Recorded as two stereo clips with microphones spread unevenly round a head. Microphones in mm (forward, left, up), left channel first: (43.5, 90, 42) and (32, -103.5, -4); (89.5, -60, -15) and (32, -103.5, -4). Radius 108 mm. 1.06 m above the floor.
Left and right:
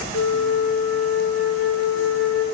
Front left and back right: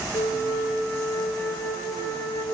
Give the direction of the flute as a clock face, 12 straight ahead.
9 o'clock.